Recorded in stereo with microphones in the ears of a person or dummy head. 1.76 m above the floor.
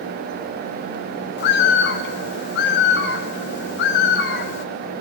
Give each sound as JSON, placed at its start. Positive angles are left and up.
{"t": 1.4, "sound": "a bird", "side_deg": 65, "distance_m": 2.5}